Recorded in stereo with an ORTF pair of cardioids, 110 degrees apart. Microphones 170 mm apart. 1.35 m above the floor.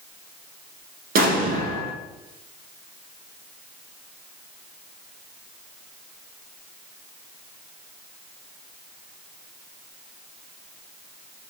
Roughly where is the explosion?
Ahead right.